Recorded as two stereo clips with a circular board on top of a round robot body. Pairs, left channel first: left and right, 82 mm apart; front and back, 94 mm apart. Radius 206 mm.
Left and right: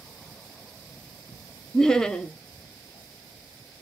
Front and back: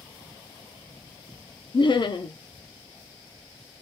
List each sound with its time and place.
1.7 s laughter: 10° left, 0.6 m